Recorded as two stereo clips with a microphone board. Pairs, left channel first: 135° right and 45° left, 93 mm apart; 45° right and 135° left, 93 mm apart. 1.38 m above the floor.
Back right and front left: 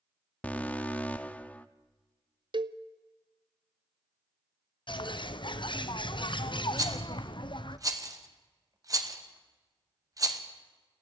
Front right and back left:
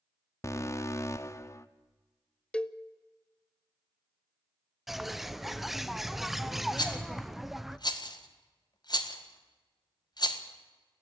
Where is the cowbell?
35° left, 0.5 m.